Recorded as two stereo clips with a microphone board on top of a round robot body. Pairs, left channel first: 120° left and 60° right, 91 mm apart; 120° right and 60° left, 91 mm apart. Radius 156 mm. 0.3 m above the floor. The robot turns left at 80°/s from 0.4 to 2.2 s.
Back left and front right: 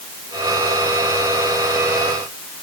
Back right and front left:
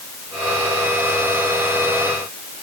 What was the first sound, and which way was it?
Only background noise.